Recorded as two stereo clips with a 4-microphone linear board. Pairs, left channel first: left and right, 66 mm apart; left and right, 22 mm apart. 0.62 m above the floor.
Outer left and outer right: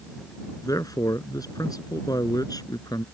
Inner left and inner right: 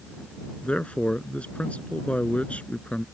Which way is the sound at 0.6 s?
65° left (ahead or behind).